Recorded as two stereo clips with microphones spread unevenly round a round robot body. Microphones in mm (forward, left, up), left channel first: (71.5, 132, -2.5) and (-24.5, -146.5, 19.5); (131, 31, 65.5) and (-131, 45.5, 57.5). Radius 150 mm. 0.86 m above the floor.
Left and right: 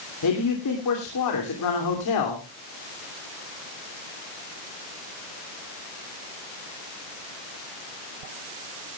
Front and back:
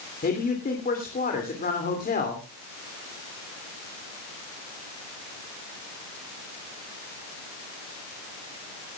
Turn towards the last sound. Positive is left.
turn(degrees=55)